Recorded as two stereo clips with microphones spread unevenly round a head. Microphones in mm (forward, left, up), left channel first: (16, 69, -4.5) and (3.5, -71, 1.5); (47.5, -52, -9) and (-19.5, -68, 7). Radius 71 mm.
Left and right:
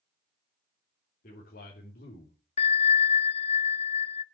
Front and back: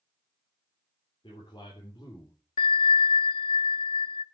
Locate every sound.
1.2 s a man speaking: 55° left, 3.5 m; by 2.4 s 70° left, 3 m
2.6 s a bell: 35° left, 0.6 m